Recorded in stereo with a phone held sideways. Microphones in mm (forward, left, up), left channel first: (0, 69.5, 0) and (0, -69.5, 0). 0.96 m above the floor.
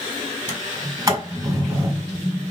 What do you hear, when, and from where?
0.5 s a sliding door: 25° right (ahead or behind), 4 m